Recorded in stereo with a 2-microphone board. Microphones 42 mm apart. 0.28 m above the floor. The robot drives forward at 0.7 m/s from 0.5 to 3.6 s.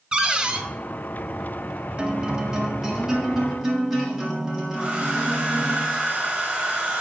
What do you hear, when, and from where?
0.1 s a cupboard door: 20° right (ahead or behind), 0.7 m
2.0 s a guitar: 25° right (ahead or behind), 0.7 m; by 5.8 s 10° right (ahead or behind), 1.7 m
4.8 s a hair dryer: 20° right (ahead or behind), 1.7 m